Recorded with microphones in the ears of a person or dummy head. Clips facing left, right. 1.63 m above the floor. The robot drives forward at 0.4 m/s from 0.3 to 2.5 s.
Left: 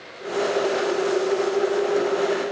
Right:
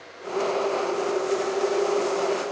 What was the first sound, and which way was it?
Only background noise.